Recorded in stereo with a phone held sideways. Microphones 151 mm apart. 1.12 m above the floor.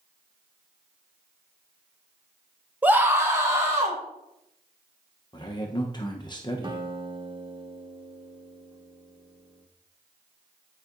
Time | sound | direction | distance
2.8 | a scream | 10° right (ahead or behind) | 0.8 m
5.3 | a man speaking | 30° left (ahead or behind) | 0.8 m
6.6 | a guitar | 30° right (ahead or behind) | 1.1 m